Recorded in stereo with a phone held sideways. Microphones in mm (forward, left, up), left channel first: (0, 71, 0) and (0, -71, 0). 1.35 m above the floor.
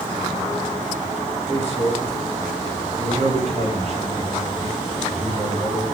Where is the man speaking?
50° right (ahead or behind), 4 m.